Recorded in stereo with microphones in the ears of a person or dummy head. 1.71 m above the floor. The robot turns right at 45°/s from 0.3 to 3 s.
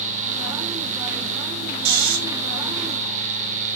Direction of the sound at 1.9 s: 75° right (ahead or behind).